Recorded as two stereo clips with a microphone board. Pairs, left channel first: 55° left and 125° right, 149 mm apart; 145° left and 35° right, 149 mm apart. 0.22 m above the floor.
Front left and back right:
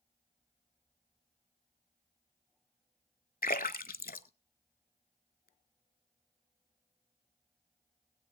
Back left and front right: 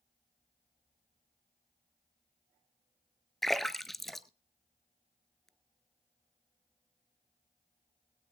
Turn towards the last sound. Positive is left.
turn(degrees=60)